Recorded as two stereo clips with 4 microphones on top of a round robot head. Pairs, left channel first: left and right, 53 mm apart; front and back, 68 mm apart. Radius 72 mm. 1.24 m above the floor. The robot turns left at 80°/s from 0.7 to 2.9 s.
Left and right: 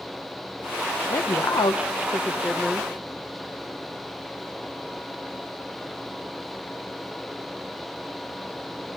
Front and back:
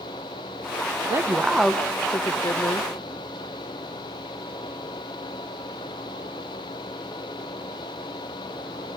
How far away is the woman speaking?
About 1.0 m.